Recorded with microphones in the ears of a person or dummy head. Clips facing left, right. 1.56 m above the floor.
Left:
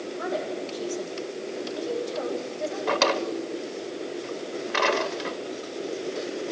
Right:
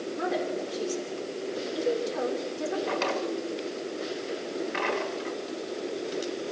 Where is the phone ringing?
No phone ringing in this recording.